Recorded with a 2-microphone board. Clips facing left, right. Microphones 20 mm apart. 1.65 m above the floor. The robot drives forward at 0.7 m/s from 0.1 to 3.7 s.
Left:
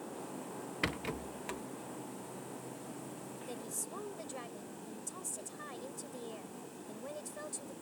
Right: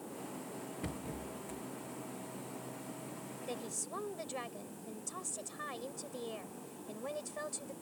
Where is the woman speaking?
20° right (ahead or behind).